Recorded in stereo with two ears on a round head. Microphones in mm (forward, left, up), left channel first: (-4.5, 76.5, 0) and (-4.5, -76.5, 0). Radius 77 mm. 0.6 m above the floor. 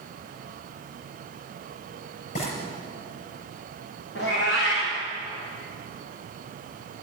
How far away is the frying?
About 6 m.